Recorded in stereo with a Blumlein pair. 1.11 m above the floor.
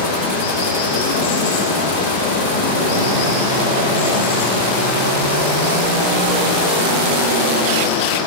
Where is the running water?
50° left, 8.5 m.